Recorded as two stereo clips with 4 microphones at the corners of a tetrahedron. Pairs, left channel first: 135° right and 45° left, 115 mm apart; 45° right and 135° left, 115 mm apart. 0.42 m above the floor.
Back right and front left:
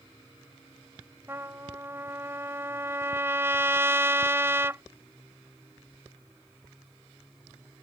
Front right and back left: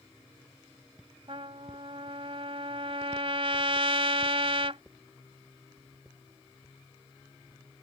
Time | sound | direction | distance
1.3 | a trumpet | 110° left | ?